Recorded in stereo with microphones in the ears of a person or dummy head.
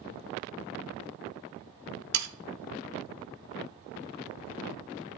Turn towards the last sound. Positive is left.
turn(degrees=-80)